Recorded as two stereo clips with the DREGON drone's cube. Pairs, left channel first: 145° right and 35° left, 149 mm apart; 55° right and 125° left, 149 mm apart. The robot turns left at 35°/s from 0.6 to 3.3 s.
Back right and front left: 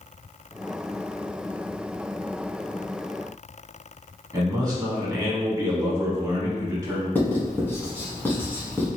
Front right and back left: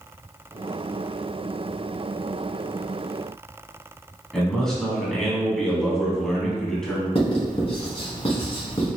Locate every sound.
4.3 s a man speaking: 25° left, 1.2 m
7.2 s writing: 80° right, 1.2 m